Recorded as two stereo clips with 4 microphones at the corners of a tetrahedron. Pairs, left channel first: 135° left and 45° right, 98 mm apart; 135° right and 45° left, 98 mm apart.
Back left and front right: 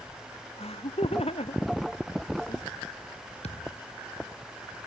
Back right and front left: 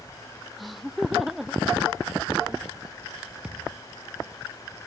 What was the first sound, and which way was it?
Laughter, 135° left.